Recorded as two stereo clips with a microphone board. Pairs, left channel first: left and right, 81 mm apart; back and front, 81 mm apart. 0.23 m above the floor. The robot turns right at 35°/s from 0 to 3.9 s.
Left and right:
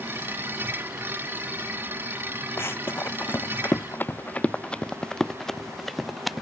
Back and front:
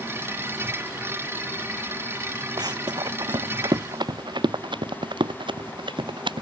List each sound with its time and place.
2.6 s running footsteps: 30° left; by 6.4 s straight ahead